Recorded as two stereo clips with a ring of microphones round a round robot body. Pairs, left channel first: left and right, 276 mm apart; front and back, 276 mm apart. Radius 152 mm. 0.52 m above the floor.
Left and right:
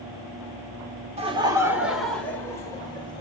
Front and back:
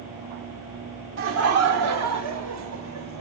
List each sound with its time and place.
1.2 s laughter: 155° right, 1.4 m; by 3.2 s 165° left, 2.5 m